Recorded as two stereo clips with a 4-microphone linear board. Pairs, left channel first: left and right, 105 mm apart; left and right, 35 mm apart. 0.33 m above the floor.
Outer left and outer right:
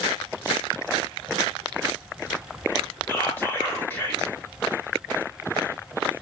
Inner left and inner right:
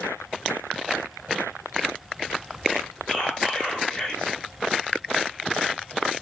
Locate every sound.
3.1 s whispering: 20° left (ahead or behind), 1.1 m